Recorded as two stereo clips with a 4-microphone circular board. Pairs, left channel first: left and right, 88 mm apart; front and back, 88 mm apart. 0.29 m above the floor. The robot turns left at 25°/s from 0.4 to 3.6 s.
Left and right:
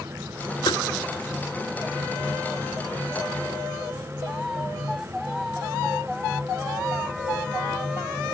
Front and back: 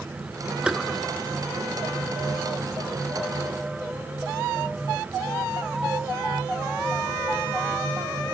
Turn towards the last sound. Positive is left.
turn(degrees=25)